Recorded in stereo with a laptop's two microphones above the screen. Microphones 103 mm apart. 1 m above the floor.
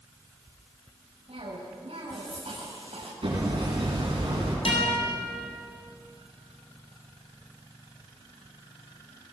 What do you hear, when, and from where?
1.3 s a cough: 75° right (ahead or behind), 5.5 m
3.2 s hammering: 55° right (ahead or behind), 9.5 m
4.7 s a guitar: 70° left (ahead or behind), 7.5 m